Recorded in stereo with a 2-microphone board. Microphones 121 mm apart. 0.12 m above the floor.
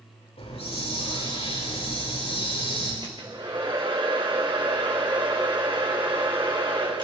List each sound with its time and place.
0.4 s a hiss: 50° left (ahead or behind), 9 m
3.0 s a hair dryer: 40° right (ahead or behind), 3.5 m